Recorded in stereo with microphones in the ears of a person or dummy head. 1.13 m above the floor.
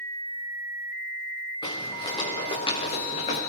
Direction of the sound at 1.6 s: 25° left (ahead or behind).